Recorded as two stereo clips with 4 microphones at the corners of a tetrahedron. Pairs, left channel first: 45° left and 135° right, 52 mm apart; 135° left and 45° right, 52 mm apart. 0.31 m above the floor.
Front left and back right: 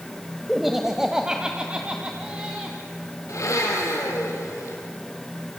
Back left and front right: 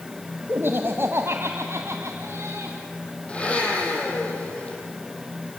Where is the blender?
65° left, 5.5 m.